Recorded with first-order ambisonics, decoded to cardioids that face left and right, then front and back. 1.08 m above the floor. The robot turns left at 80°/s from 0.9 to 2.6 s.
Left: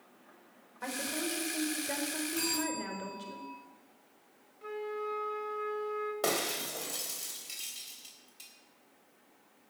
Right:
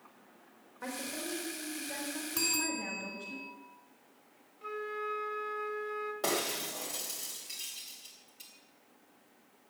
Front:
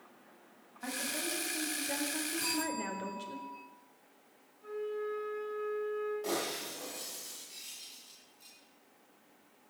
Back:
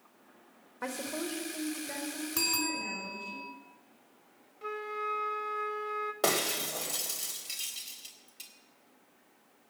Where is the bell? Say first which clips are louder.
Right 3 dB, back 6 dB; 160° right, 5 m; by 3.5 s straight behind, 5 m.